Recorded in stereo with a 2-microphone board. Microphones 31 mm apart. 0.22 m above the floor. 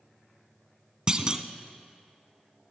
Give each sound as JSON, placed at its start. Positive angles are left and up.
{"t": 1.1, "sound": "a clunk", "side_deg": -25, "distance_m": 1.2}